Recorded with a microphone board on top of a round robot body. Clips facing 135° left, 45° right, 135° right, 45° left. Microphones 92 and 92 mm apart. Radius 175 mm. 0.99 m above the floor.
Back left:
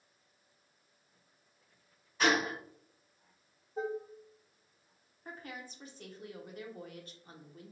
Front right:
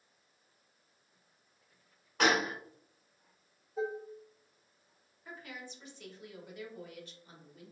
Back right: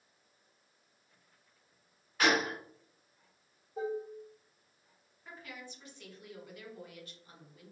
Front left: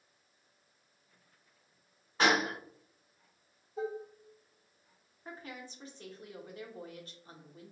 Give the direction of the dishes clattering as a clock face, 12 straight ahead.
6 o'clock.